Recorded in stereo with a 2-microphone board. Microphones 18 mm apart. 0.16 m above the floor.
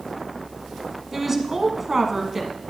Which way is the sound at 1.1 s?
20° right (ahead or behind).